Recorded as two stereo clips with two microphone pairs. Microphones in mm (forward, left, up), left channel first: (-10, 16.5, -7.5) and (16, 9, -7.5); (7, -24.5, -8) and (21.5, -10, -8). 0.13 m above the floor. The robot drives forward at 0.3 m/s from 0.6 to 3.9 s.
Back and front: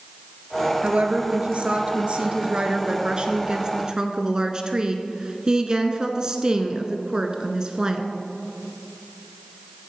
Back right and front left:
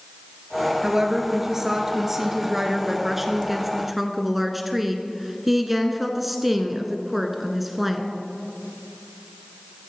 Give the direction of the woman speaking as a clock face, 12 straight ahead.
12 o'clock.